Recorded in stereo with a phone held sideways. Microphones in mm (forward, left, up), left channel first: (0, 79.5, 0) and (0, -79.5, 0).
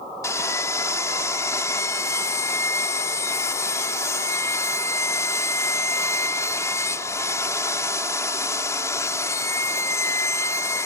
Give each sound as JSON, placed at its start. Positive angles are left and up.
{"t": 0.2, "sound": "sawing", "side_deg": 20}